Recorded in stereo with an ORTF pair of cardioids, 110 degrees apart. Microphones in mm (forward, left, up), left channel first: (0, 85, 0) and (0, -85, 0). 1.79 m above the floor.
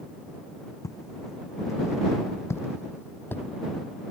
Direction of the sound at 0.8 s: 20° left.